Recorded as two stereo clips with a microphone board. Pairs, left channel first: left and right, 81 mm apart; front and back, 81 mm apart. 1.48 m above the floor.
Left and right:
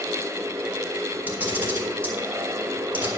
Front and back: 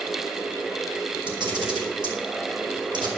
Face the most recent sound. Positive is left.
turn(degrees=-160)